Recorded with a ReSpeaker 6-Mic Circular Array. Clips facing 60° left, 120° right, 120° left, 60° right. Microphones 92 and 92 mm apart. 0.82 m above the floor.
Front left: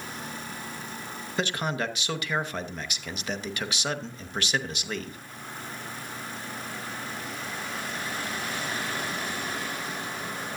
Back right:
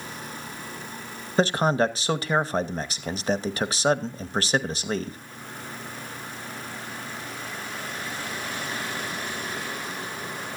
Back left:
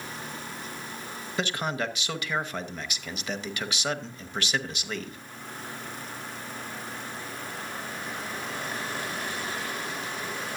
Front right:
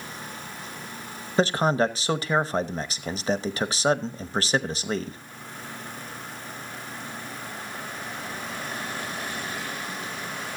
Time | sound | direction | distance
1.4 | a man speaking | 90° right | 0.8 m